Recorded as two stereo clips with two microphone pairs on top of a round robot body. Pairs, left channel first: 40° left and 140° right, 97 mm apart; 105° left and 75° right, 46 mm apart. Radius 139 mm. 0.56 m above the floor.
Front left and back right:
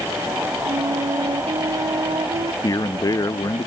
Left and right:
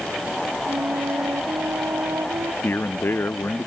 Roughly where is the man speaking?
Left.